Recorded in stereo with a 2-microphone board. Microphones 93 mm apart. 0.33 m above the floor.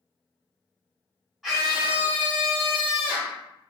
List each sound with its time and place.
1.4 s a scream: centre (ahead or behind), 1.2 m; by 3.4 s 25° right (ahead or behind), 1.9 m